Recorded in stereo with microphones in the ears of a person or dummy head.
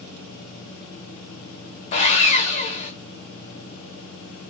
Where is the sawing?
30° left (ahead or behind), 1.2 m.